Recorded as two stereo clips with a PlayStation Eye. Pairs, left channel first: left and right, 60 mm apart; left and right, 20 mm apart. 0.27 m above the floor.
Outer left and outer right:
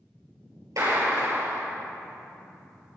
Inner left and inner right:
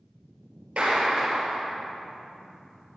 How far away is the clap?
About 5 m.